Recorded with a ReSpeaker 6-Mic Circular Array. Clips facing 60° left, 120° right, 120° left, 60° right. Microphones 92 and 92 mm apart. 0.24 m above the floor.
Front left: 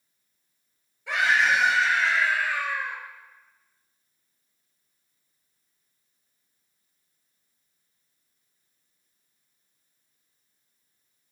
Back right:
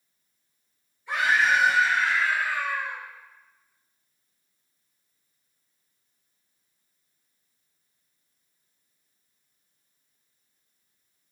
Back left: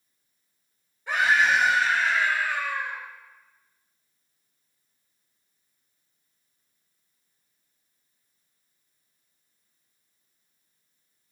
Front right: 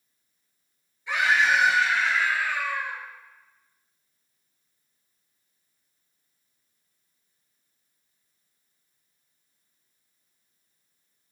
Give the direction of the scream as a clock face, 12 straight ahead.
10 o'clock.